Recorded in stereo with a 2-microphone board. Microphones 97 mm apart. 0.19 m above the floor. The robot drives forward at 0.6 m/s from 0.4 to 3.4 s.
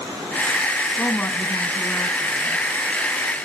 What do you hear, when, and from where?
1.0 s a woman speaking: 20° left (ahead or behind), 1.3 m; by 2.6 s 15° left (ahead or behind), 2 m